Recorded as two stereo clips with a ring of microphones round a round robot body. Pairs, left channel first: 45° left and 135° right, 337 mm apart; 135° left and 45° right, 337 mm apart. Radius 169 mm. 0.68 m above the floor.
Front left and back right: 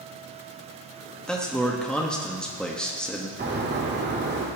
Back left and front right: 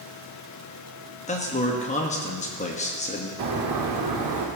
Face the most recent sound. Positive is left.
turn(degrees=-80)